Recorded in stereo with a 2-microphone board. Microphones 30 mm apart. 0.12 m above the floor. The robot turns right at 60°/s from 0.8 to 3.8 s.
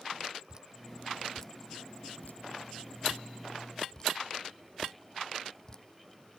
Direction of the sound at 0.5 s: 25° right (ahead or behind).